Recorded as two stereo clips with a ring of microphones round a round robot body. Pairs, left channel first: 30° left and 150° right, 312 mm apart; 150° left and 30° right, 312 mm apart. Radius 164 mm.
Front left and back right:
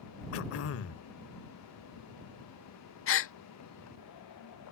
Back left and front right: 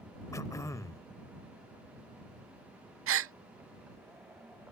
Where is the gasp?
Straight ahead.